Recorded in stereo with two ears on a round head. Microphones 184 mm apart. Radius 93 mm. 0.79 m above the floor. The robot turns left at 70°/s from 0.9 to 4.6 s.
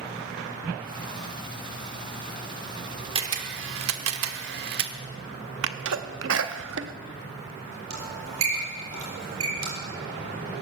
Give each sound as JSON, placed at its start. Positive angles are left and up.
{"t": 3.1, "sound": "a camera shutter", "side_deg": -25, "distance_m": 1.1}
{"t": 5.6, "sound": "a sneeze", "side_deg": -65, "distance_m": 0.9}
{"t": 7.9, "sound": "a squeak", "side_deg": -70, "distance_m": 6.5}